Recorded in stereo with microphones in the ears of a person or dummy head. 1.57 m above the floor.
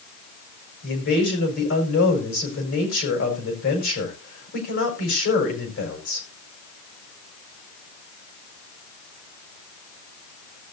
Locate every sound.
0.8 s a man speaking: 70° left (ahead or behind), 4.5 m